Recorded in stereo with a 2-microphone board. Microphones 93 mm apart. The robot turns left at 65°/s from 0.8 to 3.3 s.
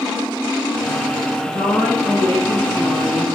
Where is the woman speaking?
90° left, 1.5 m; by 3.2 s 25° right, 1.5 m.